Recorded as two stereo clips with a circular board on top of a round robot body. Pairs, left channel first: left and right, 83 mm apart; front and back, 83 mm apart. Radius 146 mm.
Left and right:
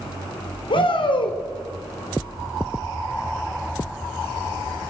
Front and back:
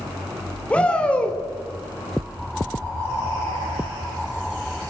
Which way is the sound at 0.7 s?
75° left.